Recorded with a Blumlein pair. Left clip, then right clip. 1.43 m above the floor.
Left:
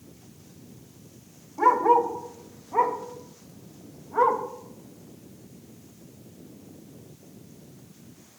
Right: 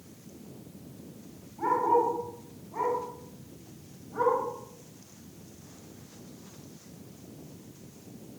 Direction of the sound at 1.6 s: 45° left.